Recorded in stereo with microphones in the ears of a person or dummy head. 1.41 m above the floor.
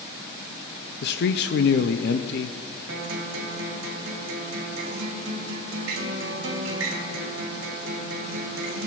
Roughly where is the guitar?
Right.